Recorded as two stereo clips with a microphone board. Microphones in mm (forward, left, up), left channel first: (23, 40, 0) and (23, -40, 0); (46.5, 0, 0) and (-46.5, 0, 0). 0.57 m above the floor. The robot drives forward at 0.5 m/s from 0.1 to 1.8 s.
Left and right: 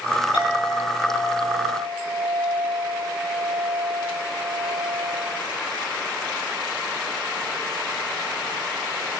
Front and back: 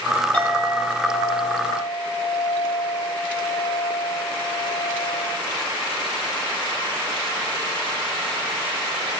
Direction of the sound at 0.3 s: 75° left.